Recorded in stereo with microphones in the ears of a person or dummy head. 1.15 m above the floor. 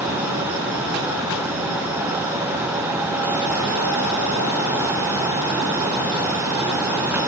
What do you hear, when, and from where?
Only background noise.